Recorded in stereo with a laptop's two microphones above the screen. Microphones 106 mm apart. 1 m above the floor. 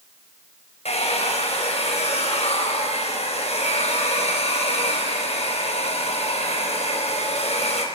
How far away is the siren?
No siren in this recording.